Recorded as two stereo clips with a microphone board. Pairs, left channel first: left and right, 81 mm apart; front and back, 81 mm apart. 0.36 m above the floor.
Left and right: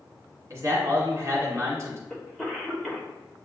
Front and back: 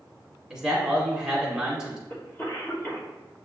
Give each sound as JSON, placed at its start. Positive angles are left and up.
{"t": 0.5, "sound": "a man speaking", "azimuth_deg": -100, "distance_m": 1.3}
{"t": 2.1, "sound": "a cough", "azimuth_deg": 10, "distance_m": 1.1}